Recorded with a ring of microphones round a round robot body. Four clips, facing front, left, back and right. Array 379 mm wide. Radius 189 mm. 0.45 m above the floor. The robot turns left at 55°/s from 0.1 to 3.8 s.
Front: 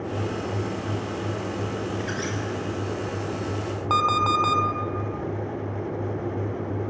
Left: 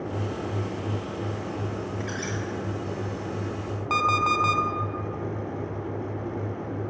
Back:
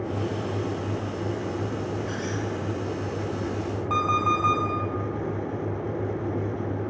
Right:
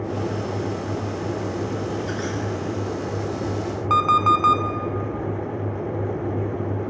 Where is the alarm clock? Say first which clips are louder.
Right 6 dB, front 2 dB; 15° right, 0.7 m.